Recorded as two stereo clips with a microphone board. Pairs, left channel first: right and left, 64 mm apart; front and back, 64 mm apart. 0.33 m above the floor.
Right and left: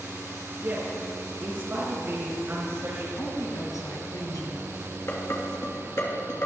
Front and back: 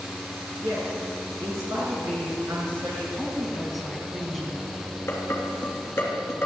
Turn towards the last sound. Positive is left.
turn(degrees=-50)